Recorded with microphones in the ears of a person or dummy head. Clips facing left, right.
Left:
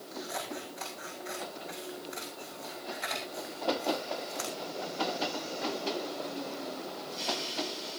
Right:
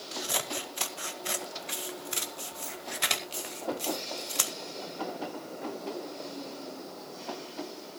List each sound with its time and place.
0.1 s scissors: 65° right (ahead or behind), 1.7 m